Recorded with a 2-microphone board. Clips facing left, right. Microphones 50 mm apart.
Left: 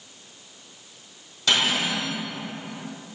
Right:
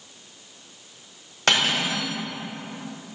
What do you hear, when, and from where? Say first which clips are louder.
1.5 s cutlery clinking: right 1 dB; 50° right (ahead or behind), 1.7 m